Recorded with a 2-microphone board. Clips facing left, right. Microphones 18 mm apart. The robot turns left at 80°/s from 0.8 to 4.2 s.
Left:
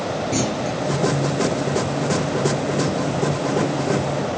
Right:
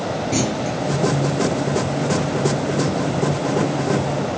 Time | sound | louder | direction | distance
0.3 | a clunk | right 2 dB | 15° right (ahead or behind) | 3 m